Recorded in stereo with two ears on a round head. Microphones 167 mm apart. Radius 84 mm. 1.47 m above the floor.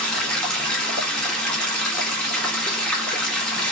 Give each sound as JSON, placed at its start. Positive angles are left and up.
{"t": 0.0, "sound": "running water", "side_deg": 5, "distance_m": 1.0}